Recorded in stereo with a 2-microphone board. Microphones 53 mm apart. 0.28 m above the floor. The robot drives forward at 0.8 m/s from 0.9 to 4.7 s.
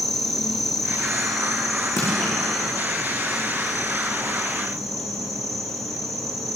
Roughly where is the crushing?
Left.